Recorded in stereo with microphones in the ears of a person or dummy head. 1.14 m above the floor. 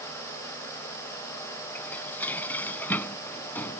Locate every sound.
1.8 s dishes clattering: 15° left (ahead or behind)